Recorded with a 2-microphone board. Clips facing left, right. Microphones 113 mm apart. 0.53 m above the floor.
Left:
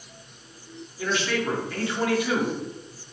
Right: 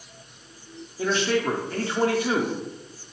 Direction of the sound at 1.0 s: 35° right (ahead or behind).